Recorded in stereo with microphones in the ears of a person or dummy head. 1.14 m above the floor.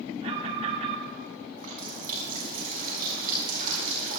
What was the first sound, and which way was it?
An alarm, 30° right (ahead or behind).